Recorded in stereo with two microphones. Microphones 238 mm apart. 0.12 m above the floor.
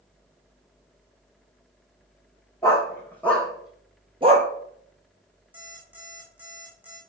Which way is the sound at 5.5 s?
5° right (ahead or behind).